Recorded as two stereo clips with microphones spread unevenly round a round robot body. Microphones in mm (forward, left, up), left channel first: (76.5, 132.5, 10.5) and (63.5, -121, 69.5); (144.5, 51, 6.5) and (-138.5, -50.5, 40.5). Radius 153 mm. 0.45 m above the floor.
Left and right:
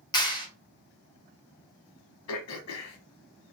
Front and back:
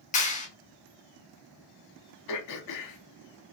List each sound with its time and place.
0.1 s a clap: 50° left, 1.1 m
2.3 s throat clearing: 55° left, 0.6 m